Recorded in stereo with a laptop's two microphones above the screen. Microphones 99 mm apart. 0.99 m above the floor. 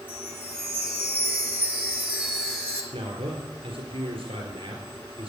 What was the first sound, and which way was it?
A chime, 15° right (ahead or behind).